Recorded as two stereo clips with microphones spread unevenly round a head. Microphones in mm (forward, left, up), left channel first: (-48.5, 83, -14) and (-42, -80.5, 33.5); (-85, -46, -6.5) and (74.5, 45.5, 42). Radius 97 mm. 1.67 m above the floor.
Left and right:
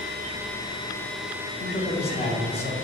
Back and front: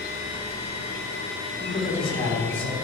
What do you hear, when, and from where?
1.6 s a man speaking: 145° left, 2.5 m